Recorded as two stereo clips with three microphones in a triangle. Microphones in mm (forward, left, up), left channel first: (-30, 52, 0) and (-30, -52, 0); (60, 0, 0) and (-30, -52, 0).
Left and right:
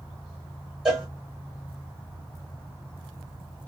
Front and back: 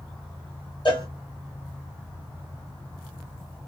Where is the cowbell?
5° right, 1.5 m.